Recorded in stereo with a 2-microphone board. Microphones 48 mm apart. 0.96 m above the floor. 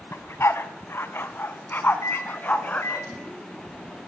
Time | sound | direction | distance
0.1 | a dog barking | 65° left (ahead or behind) | 1.6 m
2.0 | a microwave | 85° left | 6 m